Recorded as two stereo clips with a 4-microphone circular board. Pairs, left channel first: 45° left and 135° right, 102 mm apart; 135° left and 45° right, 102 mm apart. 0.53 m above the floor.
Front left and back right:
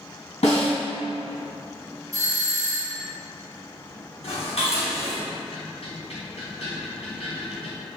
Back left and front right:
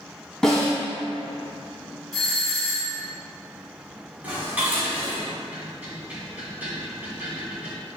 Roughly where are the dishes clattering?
Ahead left.